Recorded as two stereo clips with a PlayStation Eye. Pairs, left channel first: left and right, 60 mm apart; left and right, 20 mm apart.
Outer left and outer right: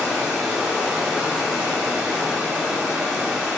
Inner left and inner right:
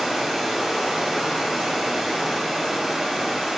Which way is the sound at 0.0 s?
10° right (ahead or behind).